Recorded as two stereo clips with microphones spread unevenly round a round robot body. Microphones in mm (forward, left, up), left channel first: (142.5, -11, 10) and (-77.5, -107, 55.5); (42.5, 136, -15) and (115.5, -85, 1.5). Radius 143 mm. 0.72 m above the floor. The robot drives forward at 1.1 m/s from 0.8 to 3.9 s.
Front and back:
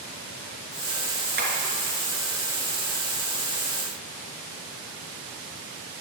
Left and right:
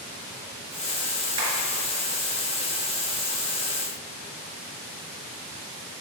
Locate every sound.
1.4 s tapping: 110° right, 3.5 m; by 1.5 s 115° right, 3.5 m